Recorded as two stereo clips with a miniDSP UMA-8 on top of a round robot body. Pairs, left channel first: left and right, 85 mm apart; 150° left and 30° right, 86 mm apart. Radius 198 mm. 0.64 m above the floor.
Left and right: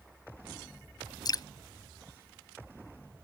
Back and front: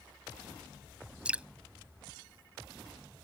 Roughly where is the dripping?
Ahead left.